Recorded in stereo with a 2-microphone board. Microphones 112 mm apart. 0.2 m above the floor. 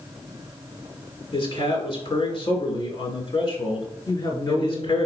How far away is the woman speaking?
About 3 m.